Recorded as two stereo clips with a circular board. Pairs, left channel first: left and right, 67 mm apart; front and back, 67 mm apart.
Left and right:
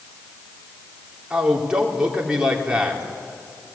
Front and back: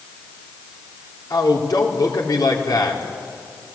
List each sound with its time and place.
1.3 s a man speaking: 10° right, 4 m